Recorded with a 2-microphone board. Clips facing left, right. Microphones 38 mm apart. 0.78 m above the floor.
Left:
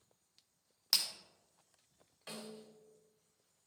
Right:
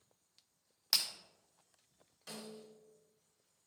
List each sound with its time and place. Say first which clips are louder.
0.9 s breaking glass: even; 5° right (ahead or behind), 0.8 m
2.3 s a snare drum: left 1 dB; 30° left (ahead or behind), 2.0 m